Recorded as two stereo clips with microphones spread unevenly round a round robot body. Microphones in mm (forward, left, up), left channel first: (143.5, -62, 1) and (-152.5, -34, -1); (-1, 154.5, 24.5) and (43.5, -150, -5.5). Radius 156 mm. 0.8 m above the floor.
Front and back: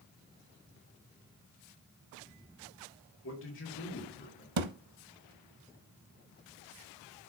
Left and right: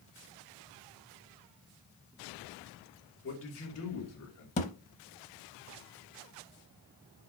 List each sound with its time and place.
3.2 s a man speaking: 45° left, 2.5 m; by 4.5 s 60° left, 3 m
4.6 s a thud: 160° left, 0.8 m